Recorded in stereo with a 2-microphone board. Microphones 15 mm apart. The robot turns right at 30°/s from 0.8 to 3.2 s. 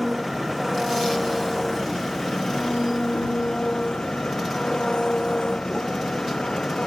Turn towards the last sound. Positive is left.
turn(degrees=70)